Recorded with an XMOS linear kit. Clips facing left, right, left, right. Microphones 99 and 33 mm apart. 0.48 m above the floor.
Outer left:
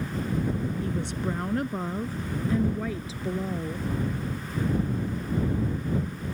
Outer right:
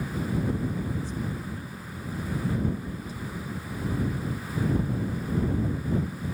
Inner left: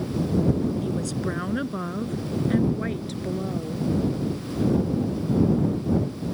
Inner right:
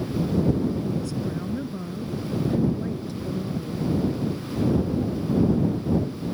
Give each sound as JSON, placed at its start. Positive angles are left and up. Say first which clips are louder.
{"t": 0.8, "sound": "a woman speaking", "louder": "outer left 2 dB, even", "side_deg": 75}